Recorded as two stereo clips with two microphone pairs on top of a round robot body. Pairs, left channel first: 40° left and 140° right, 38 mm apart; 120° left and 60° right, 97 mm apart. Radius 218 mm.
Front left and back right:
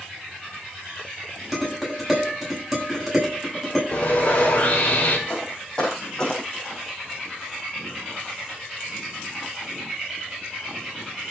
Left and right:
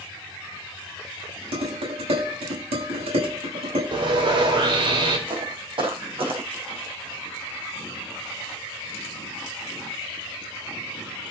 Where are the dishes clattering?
50° right, 7.5 m.